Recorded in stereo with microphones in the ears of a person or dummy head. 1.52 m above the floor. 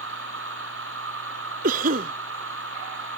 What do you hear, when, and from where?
0.0 s a machine running: 85° right
1.6 s a cough: 50° right (ahead or behind)